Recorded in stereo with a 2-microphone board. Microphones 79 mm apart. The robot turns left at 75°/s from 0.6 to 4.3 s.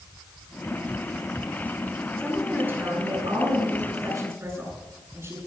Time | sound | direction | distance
2.2 | a woman speaking | 15° left | 8 m